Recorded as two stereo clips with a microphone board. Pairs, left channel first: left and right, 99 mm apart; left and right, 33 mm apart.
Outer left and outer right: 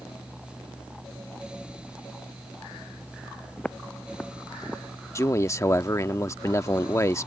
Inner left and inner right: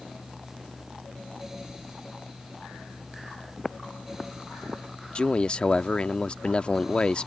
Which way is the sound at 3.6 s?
10° left (ahead or behind).